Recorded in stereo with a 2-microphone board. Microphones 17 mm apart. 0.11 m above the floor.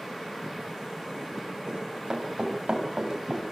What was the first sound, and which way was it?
Running footsteps, 65° right (ahead or behind).